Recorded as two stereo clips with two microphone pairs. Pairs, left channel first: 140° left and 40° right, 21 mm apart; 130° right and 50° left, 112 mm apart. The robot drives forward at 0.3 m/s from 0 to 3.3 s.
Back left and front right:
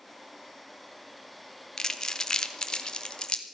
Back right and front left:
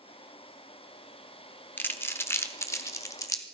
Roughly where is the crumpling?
Behind.